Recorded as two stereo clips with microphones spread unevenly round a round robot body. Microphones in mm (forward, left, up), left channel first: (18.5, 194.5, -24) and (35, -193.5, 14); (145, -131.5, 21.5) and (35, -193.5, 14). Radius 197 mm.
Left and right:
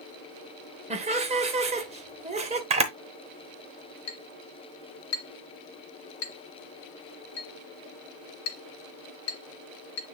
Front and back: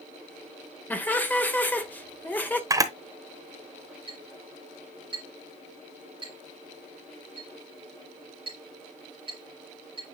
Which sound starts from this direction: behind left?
A clink, at 4.1 s.